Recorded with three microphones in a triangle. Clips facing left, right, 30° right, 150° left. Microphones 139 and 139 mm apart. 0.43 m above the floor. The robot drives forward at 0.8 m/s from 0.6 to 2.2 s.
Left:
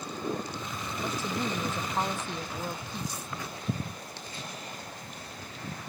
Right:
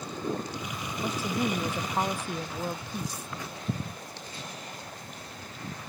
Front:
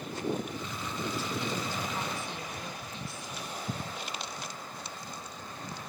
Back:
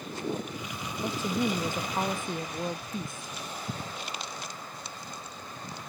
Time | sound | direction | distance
1.0 | a woman speaking | 170° right | ?